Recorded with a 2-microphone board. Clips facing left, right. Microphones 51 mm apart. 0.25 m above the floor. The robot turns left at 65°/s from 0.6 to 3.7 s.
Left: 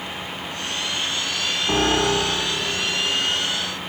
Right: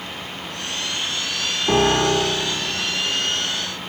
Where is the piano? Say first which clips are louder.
Right 3 dB; 105° right, 4.5 m; by 2.7 s 170° right, 4.5 m.